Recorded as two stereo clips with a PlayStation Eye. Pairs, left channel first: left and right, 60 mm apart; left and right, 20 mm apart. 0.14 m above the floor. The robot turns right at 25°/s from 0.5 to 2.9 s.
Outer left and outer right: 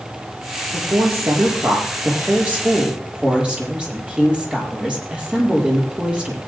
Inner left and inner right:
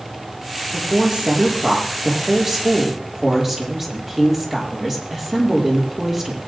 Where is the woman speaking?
70° right, 5 m; by 6.4 s 15° right, 5 m.